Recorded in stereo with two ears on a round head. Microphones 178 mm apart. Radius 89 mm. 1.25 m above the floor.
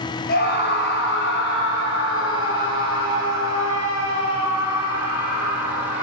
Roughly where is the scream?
Left.